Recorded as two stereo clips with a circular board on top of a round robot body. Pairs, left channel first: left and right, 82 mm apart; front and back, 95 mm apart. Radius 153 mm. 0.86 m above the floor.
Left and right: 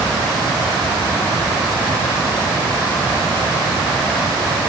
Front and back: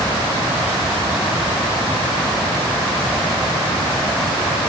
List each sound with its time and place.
Only background noise.